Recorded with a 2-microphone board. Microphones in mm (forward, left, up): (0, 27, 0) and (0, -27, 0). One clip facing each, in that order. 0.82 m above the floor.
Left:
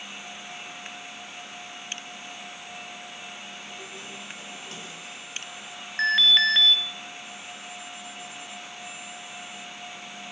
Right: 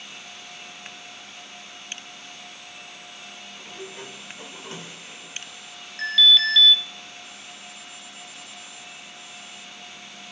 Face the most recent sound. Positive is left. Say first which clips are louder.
# right 1 dB
turn(degrees=40)  # may be behind; listen again after turning